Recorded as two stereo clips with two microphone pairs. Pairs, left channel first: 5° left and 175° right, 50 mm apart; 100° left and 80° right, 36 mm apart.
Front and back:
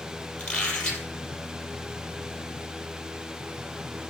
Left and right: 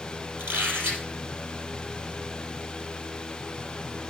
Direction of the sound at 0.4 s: 70° right.